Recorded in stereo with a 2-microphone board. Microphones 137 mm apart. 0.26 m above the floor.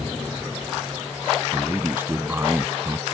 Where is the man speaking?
15° right (ahead or behind).